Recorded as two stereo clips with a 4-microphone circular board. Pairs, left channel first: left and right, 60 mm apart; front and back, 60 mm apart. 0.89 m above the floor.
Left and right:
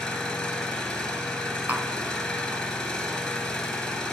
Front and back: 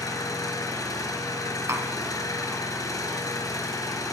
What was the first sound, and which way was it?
An engine running, 10° left.